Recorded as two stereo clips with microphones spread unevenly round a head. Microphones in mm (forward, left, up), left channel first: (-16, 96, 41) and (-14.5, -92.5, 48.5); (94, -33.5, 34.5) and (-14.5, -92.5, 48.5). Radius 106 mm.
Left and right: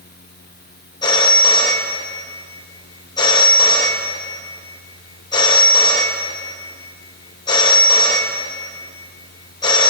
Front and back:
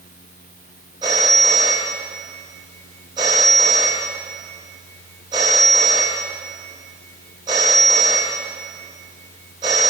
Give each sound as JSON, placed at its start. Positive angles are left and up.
{"t": 1.0, "sound": "a phone ringing", "azimuth_deg": 155, "distance_m": 0.8}